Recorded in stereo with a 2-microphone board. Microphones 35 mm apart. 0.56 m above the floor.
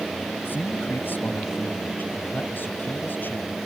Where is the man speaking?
70° left (ahead or behind).